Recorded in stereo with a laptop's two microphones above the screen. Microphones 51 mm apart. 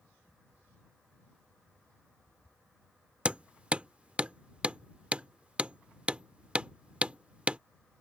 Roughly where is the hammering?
Right.